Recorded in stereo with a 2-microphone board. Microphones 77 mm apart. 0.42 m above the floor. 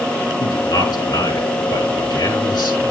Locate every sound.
0.4 s a man speaking: 65° left (ahead or behind), 5.5 m